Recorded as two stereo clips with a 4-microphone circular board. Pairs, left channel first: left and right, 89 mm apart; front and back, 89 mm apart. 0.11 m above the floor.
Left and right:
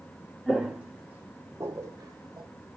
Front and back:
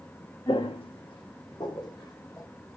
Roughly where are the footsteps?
Ahead.